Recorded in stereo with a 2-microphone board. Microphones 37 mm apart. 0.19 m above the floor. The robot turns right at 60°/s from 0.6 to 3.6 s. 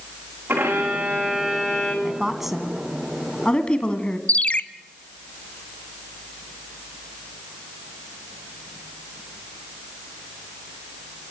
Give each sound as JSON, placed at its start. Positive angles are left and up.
{"t": 0.5, "sound": "a violin", "azimuth_deg": -70, "distance_m": 6.0}
{"t": 2.0, "sound": "a woman speaking", "side_deg": -20, "distance_m": 1.8}
{"t": 4.3, "sound": "a ringtone", "side_deg": 35, "distance_m": 0.5}